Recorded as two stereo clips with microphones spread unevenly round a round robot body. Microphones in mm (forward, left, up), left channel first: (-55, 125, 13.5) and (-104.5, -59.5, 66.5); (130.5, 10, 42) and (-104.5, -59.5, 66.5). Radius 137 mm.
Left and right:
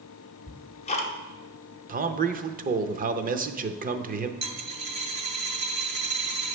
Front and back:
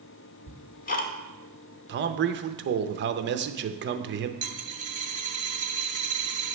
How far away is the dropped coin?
About 0.6 m.